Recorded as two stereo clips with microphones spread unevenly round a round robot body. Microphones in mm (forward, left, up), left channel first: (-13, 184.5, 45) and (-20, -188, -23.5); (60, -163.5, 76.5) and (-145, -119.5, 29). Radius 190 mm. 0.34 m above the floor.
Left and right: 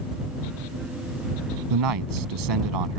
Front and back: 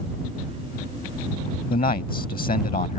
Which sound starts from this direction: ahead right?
A man speaking, at 1.7 s.